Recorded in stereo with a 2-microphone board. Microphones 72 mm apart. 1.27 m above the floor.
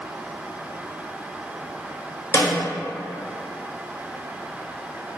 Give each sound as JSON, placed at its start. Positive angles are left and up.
{"t": 2.3, "sound": "a snare drum", "side_deg": 30, "distance_m": 0.8}